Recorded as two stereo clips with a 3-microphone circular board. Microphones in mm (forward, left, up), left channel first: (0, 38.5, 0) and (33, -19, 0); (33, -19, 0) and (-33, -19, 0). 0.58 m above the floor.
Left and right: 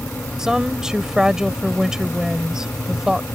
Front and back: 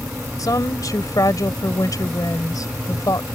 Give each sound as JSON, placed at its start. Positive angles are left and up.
{"t": 0.4, "sound": "a woman speaking", "azimuth_deg": 20}